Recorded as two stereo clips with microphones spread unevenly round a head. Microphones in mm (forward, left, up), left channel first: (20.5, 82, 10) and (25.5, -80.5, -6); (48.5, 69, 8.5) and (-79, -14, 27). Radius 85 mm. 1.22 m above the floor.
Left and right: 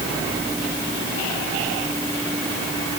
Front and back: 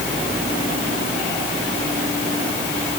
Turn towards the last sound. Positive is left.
No sound to turn to.